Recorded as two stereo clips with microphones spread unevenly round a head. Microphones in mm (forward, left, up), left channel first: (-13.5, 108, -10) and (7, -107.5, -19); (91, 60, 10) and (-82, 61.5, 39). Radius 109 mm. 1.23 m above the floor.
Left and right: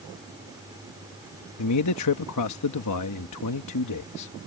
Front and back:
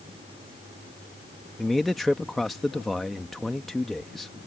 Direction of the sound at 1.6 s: 90° left.